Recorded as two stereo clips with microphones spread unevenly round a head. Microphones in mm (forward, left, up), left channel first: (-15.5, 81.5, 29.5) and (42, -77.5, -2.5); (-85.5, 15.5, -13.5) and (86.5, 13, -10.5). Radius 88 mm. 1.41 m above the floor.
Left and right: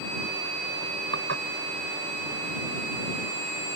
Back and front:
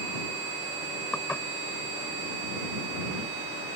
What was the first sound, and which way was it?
Dishes clattering, 95° right.